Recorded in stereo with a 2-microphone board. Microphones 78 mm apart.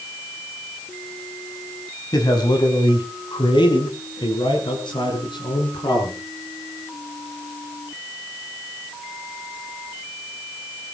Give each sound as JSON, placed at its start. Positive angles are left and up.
{"t": 2.1, "sound": "a man speaking", "side_deg": 55, "distance_m": 4.5}